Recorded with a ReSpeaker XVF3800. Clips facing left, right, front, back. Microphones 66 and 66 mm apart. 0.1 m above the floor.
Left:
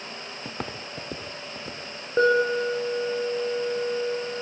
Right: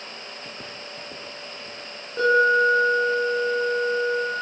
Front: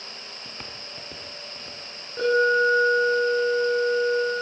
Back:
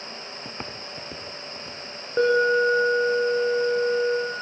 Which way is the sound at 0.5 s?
125° left.